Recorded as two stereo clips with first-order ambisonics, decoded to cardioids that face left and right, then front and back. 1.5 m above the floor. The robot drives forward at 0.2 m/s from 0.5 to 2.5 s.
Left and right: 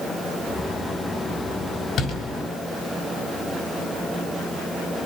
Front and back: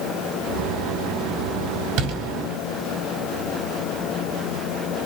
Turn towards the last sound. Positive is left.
turn(degrees=155)